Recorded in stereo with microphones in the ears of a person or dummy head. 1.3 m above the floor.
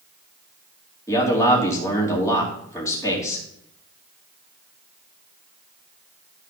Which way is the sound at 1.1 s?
20° left (ahead or behind).